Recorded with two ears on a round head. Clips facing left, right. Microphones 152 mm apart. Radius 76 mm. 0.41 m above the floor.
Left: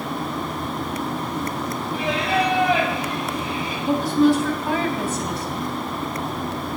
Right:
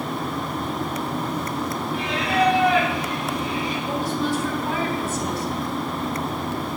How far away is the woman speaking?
About 3 m.